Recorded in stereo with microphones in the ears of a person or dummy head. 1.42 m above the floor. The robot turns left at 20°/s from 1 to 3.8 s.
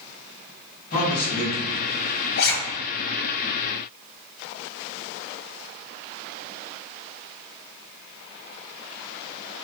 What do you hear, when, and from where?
0.9 s a man speaking: 35° left (ahead or behind), 1.9 m; by 1.7 s 25° left (ahead or behind), 1.9 m
2.4 s a zipper: 60° left (ahead or behind), 0.8 m; by 2.5 s 55° left (ahead or behind), 0.8 m